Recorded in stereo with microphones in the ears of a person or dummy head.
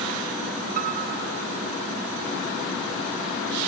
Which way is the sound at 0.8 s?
50° right (ahead or behind).